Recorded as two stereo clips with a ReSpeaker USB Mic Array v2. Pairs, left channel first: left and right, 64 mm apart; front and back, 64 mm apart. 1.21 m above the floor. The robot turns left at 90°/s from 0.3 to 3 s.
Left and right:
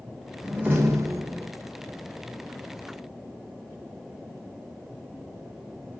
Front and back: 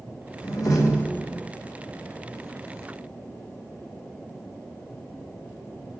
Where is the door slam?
10° right, 1.6 m; by 1.5 s 105° right, 1.6 m.